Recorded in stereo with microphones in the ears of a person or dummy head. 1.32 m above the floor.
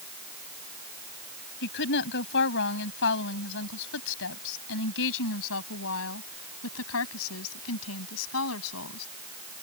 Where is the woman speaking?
60° left (ahead or behind); by 9.1 s 85° left.